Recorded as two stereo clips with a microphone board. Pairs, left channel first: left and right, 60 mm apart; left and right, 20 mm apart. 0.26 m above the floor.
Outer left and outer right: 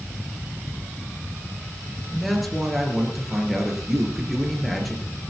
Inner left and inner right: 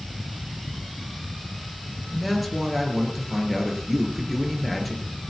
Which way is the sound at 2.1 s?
Centre (ahead or behind).